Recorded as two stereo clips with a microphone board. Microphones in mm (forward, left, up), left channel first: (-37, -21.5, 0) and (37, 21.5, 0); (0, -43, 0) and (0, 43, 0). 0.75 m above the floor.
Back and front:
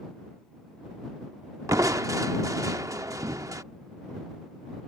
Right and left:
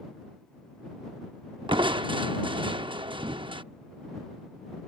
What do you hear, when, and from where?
1.7 s crushing: 80° left